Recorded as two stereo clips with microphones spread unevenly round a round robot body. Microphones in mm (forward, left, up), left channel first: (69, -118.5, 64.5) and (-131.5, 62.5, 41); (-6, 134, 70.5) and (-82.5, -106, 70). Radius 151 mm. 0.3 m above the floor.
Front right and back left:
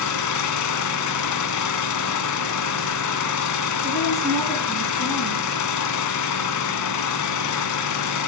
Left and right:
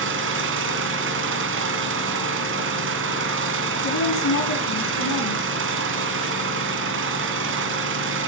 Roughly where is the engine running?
Ahead right.